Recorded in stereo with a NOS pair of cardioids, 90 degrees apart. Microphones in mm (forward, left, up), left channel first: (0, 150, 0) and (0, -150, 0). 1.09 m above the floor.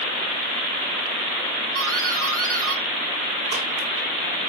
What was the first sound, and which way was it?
A doorbell, 60° right.